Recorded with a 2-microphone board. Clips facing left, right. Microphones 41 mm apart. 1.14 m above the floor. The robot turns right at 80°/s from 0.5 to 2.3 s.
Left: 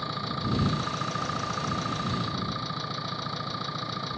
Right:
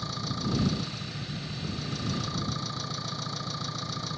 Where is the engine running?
20° left; by 4.2 s 165° left.